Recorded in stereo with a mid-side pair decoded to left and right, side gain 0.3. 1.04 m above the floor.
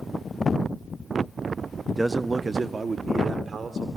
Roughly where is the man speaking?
Ahead.